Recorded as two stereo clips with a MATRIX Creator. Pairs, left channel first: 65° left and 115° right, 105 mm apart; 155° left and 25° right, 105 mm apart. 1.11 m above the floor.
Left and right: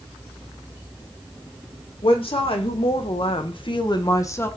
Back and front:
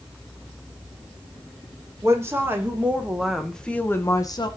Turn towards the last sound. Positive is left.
turn(degrees=130)